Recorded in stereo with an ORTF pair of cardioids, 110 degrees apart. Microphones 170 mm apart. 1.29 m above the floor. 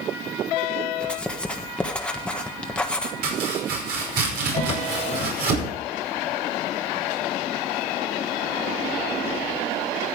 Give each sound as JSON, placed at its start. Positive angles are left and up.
{"t": 1.0, "sound": "writing", "azimuth_deg": 5, "distance_m": 1.4}
{"t": 3.2, "sound": "chopping", "azimuth_deg": -65, "distance_m": 5.5}
{"t": 4.5, "sound": "a drawer", "azimuth_deg": 45, "distance_m": 2.5}